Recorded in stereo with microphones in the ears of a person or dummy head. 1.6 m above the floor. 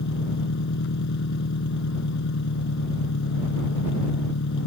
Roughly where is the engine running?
Left.